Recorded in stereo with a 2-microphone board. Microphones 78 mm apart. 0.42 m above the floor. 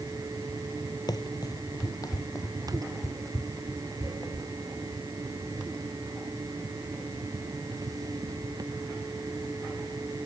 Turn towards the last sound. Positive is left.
turn(degrees=35)  # may be behind; listen again after turning